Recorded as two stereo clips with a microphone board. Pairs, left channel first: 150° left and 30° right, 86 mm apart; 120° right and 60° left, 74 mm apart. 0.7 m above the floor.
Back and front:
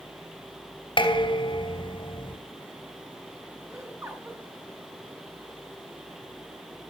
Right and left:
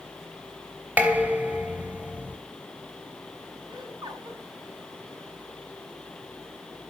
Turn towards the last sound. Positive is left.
turn(degrees=35)